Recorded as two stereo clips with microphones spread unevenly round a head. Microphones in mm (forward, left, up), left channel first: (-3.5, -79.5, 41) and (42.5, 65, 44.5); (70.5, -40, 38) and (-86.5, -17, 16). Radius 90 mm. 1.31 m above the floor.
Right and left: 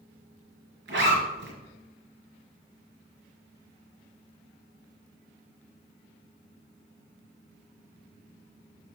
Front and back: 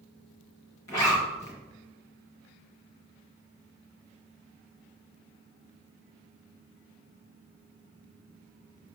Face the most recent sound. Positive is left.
turn(degrees=65)